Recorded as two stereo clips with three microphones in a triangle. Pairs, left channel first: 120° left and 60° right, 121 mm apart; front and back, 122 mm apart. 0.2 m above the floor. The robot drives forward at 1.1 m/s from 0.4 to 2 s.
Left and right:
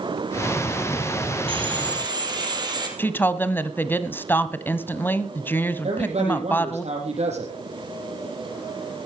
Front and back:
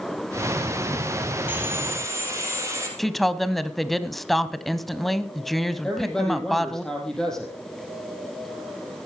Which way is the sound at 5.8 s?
85° right.